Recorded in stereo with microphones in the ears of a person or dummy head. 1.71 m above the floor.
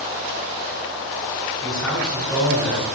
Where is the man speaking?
5° right (ahead or behind), 5.5 m; by 3.0 s 20° right (ahead or behind), 5.5 m.